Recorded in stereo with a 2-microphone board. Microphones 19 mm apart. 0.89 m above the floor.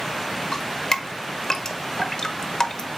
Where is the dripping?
35° left (ahead or behind), 1.0 m.